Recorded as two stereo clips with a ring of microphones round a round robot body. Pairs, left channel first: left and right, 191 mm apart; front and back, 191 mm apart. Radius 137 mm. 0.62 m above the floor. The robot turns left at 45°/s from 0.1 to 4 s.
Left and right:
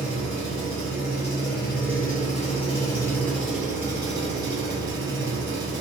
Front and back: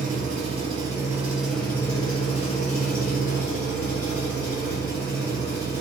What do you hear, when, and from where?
0.0 s an engine running: 150° left, 1.3 m; by 5.8 s 25° right, 1.3 m